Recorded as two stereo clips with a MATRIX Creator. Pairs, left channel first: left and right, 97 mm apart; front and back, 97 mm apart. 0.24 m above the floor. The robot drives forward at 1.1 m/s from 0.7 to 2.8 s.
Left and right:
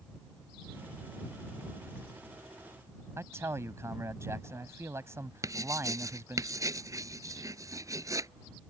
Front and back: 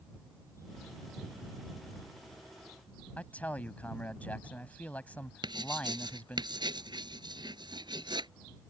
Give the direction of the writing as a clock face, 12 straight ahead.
5 o'clock.